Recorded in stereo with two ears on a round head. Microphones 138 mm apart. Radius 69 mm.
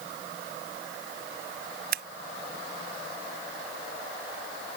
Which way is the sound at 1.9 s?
70° right (ahead or behind).